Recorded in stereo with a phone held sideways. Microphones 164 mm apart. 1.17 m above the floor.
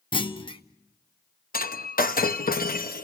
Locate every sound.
0.1 s a clunk: 30° left (ahead or behind), 0.8 m
1.5 s breaking glass: 60° left (ahead or behind), 0.8 m